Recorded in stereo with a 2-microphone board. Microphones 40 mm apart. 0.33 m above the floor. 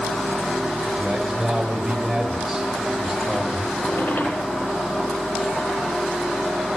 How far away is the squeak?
About 4 m.